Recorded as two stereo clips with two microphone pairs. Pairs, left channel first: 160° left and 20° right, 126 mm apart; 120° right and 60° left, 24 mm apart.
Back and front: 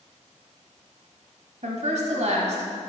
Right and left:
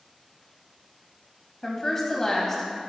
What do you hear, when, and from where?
1.6 s a woman speaking: 40° right, 1.2 m